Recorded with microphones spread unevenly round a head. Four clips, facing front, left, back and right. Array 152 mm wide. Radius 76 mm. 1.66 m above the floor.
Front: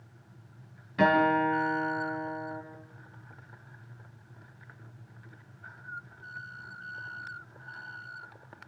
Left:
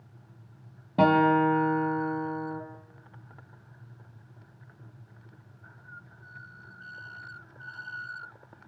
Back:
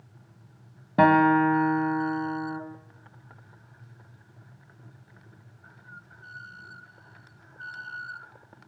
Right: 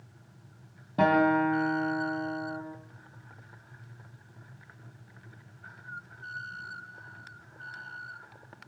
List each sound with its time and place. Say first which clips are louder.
1.0 s a guitar: left 2 dB, back 5 dB; 165° left, 2.5 m